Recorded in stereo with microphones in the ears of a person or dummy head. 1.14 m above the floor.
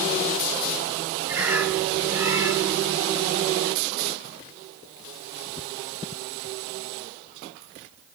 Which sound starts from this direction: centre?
A bird, at 1.3 s.